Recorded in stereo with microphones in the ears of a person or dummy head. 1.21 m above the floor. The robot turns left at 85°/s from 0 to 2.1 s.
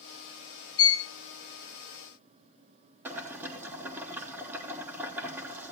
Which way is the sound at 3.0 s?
15° right (ahead or behind).